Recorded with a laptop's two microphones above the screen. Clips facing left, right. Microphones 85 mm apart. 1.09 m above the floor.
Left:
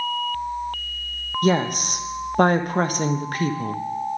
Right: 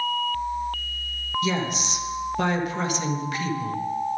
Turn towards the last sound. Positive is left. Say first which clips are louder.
# left 7 dB
turn(degrees=50)  # may be behind; listen again after turning